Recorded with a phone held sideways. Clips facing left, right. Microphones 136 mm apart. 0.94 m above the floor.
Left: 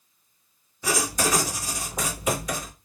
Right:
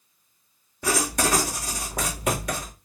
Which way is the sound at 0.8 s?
70° right (ahead or behind).